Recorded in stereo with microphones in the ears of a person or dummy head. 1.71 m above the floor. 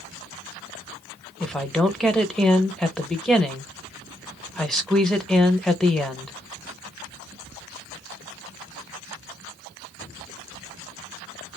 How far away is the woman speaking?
About 0.6 m.